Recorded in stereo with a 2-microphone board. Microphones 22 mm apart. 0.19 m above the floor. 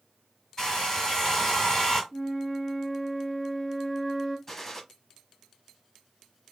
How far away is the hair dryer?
About 2.5 m.